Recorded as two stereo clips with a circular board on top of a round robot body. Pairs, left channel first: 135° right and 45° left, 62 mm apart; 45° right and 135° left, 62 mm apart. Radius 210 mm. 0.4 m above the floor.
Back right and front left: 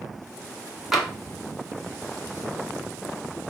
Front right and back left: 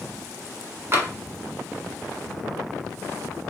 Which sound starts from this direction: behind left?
Tapping, at 0.9 s.